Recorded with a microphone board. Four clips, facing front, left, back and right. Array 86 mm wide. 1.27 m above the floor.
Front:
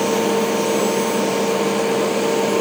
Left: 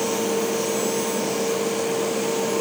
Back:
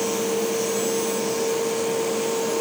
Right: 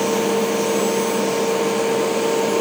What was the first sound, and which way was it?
Only background noise.